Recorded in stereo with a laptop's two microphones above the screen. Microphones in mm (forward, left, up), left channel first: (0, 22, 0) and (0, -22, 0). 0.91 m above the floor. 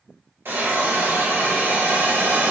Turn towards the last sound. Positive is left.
turn(degrees=-70)  # may be behind; listen again after turning